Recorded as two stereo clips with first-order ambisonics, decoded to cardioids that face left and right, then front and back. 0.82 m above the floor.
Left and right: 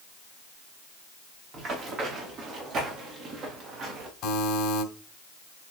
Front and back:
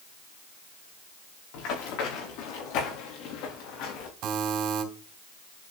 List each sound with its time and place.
1.5 s running footsteps: 25° right, 6 m; by 4.1 s 30° right, 4.5 m
4.2 s a buzzer: 140° left, 3 m